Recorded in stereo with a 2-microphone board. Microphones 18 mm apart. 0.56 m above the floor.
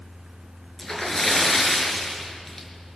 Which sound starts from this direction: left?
A splash, at 0.8 s.